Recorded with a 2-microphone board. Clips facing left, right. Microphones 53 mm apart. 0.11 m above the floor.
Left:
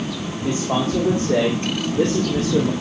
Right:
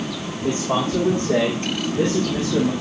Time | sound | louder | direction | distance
0.4 | a man speaking | even | 35° right (ahead or behind) | 7.5 m